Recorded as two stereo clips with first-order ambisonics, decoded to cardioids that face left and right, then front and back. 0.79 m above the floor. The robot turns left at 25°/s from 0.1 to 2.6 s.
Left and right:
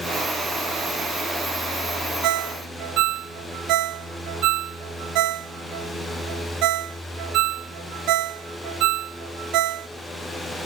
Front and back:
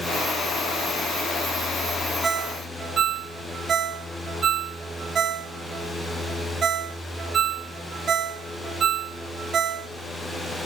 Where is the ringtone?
110° right, 0.5 m; by 9.9 s 120° right, 0.5 m.